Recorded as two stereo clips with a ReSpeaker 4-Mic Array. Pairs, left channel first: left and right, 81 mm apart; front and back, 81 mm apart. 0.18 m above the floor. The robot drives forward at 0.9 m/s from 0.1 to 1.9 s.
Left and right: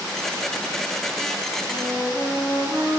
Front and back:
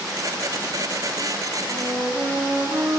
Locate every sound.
1.6 s a flute: 155° left, 4 m; by 3.0 s 160° left, 4.5 m